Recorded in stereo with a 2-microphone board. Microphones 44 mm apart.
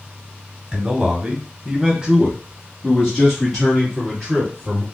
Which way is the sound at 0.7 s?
20° right (ahead or behind).